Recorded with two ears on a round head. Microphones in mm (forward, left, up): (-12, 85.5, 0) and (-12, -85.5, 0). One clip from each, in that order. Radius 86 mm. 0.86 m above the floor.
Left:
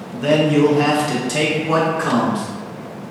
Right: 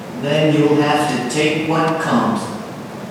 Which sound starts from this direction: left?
A man speaking, at 0.1 s.